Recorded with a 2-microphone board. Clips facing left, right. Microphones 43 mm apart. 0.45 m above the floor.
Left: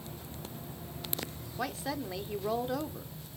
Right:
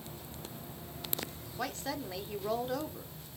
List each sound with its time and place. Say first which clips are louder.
1.6 s a woman speaking: left 2 dB; 5° left (ahead or behind), 0.7 m